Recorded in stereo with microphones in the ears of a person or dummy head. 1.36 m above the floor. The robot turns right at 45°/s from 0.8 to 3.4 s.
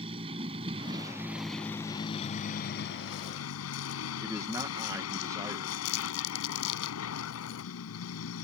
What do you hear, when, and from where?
0.0 s a vehicle: 25° right; by 8.4 s 90° left
4.2 s a man speaking: 10° right (ahead or behind)
5.8 s crumpling: 70° left (ahead or behind)